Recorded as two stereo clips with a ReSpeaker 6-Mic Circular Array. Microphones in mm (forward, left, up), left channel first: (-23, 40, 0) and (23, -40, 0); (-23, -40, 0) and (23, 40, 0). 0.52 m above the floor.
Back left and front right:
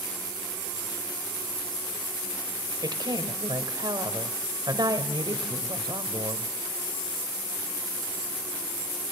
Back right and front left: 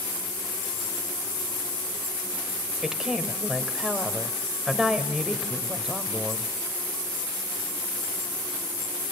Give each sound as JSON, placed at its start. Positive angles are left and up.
{"t": 2.8, "sound": "a woman speaking", "azimuth_deg": -25, "distance_m": 1.9}